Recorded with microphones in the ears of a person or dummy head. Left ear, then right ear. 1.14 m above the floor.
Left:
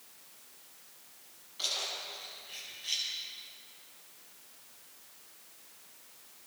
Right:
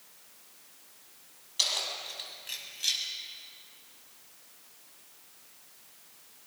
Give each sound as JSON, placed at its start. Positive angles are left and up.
{"t": 1.6, "sound": "keys jangling", "side_deg": -65, "distance_m": 7.0}